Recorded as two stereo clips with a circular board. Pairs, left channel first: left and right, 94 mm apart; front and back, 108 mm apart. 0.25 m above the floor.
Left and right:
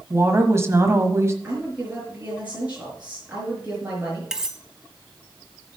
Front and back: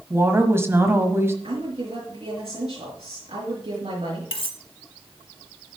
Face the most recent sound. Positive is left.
turn(degrees=-10)